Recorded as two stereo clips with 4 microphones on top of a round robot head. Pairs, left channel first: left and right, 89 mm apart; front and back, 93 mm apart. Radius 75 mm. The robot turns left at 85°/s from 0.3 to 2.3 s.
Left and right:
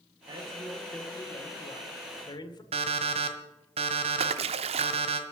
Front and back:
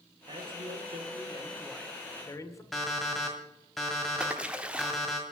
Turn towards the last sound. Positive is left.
turn(degrees=-100)